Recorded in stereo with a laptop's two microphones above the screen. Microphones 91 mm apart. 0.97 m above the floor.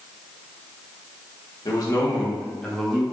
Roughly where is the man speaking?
Left.